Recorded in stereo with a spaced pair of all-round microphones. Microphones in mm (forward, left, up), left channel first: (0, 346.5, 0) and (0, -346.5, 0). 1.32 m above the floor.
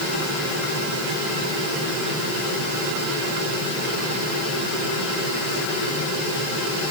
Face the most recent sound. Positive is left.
No sound to turn to.